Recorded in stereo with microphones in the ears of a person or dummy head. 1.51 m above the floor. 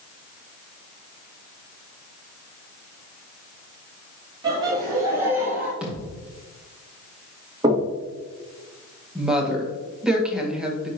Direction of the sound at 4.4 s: 25° right (ahead or behind).